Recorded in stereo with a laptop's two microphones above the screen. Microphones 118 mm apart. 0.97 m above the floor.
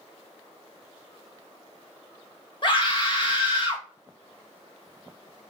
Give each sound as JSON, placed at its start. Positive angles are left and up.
{"t": 2.6, "sound": "a scream", "side_deg": 45, "distance_m": 1.3}